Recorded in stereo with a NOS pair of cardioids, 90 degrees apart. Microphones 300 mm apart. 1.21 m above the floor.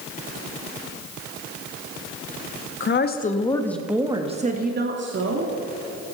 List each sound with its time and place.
2.8 s a woman speaking: 40° left, 1.8 m; by 5.5 s 45° right, 3 m